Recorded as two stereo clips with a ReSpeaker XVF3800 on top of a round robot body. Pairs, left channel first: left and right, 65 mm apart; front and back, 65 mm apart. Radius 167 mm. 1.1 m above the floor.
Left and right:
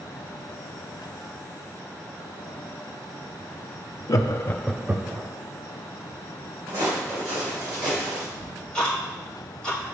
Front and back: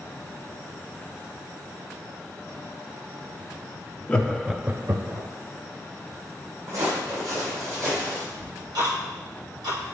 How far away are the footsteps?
About 3.5 m.